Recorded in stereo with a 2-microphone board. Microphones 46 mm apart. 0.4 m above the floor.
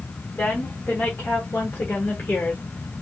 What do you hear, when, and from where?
0.3 s a woman speaking: 45° left (ahead or behind), 2.5 m; by 3.0 s 35° left (ahead or behind), 1.7 m